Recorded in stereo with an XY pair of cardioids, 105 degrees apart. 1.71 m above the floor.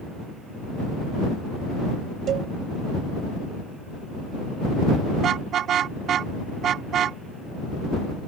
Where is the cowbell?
65° right.